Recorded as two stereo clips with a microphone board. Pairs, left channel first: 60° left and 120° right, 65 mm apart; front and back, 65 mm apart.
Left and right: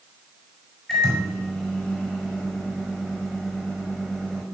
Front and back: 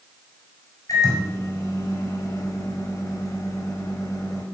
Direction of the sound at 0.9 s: 25° right.